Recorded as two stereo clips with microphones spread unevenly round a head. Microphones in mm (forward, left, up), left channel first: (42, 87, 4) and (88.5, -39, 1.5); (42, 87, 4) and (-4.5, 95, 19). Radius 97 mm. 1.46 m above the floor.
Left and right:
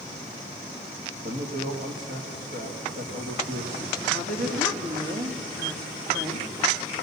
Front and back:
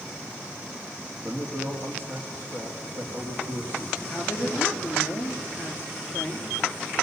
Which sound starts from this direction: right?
A woman speaking, at 4.1 s.